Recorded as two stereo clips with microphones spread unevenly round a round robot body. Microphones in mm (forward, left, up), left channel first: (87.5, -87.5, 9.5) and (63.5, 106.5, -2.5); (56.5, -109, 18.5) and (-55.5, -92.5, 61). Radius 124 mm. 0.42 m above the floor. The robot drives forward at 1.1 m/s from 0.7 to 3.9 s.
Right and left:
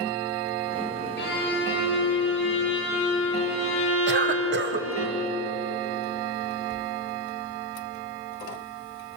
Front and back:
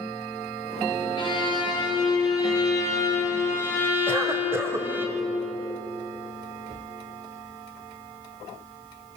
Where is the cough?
90° left, 2.5 m.